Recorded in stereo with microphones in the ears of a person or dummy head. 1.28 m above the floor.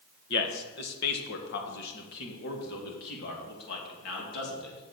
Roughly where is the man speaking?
Left.